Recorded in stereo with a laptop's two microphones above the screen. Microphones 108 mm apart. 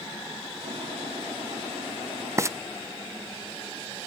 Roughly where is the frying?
Right.